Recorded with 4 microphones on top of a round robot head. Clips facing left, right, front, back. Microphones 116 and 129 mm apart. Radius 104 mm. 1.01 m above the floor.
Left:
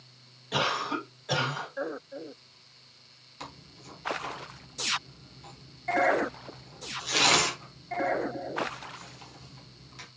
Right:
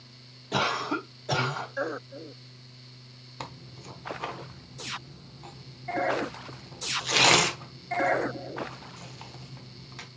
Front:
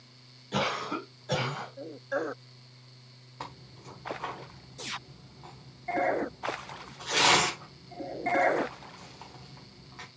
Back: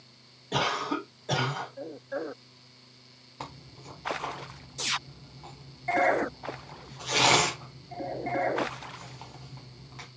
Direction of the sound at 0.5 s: 135° right.